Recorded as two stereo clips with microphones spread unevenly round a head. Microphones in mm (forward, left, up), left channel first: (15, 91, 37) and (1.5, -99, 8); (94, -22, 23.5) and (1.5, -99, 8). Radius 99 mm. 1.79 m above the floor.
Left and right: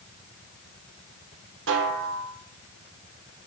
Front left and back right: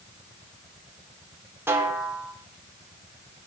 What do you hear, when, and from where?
1.7 s a snare drum: 70° right, 1.5 m